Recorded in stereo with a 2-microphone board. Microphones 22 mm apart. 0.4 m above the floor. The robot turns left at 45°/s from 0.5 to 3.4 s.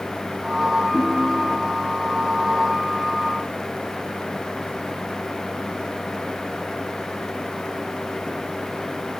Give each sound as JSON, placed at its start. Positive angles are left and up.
{"t": 0.9, "sound": "a ringtone", "azimuth_deg": 150, "distance_m": 2.5}